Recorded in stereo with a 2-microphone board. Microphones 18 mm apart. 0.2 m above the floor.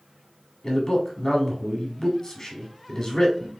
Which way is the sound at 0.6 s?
35° left (ahead or behind).